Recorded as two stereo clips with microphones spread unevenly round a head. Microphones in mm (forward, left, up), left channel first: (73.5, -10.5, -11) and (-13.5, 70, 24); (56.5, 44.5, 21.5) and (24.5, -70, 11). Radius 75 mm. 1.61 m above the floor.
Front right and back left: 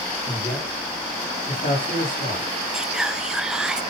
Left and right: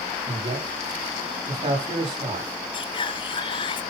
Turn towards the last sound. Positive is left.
turn(degrees=75)